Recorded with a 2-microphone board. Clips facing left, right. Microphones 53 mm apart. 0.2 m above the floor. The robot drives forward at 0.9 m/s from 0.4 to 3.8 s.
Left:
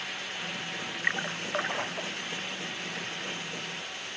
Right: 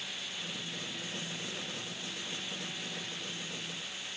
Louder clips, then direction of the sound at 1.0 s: Left 10 dB; 80° left.